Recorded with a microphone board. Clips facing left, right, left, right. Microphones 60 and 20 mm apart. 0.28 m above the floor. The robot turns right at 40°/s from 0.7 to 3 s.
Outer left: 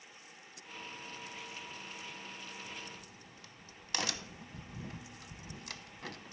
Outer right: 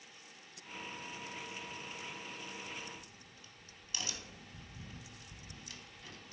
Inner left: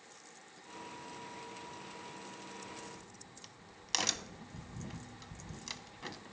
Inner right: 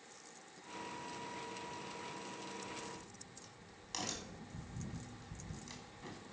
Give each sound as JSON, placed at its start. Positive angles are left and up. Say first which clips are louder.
{"t": 2.6, "sound": "a crack", "louder": "even, inner right 1 dB", "side_deg": 60, "distance_m": 0.7}